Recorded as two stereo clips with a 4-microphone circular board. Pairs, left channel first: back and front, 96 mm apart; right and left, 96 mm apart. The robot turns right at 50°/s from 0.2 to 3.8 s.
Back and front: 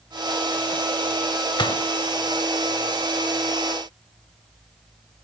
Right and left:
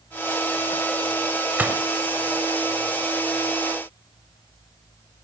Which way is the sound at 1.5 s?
155° left.